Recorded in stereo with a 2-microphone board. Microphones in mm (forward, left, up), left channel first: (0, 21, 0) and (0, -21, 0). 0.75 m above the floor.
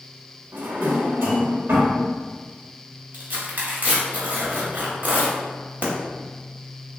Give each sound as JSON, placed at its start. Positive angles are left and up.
{"t": 0.5, "sound": "a drawer", "side_deg": -75, "distance_m": 1.1}
{"t": 3.1, "sound": "tearing paper", "side_deg": -50, "distance_m": 1.1}